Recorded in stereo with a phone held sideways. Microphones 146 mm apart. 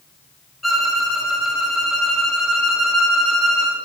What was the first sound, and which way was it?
A violin, centre (ahead or behind).